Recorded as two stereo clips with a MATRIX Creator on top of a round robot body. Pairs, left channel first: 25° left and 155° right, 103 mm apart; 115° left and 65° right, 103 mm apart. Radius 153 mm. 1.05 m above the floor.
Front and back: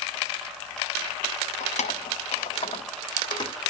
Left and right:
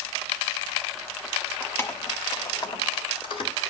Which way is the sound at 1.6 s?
35° left.